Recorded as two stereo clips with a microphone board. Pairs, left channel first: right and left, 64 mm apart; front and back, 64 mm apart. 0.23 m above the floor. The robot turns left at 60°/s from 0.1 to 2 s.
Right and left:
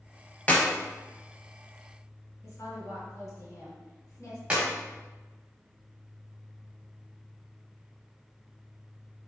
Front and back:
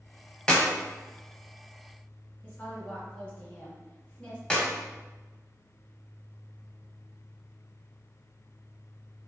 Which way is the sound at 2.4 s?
65° right.